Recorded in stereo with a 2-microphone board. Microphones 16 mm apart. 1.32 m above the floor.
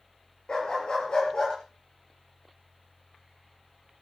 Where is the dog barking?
50° left (ahead or behind), 6.5 m; by 1.6 s 45° left (ahead or behind), 6.5 m.